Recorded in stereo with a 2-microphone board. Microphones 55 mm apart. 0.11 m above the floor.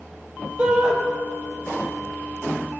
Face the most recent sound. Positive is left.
turn(degrees=-20)  # may be behind; listen again after turning